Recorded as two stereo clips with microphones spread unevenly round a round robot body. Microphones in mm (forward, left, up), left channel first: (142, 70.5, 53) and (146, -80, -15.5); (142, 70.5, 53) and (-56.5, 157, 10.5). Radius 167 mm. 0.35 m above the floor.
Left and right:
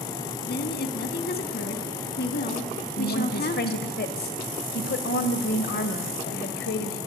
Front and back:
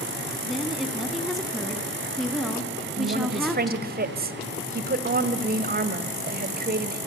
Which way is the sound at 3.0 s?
135° left.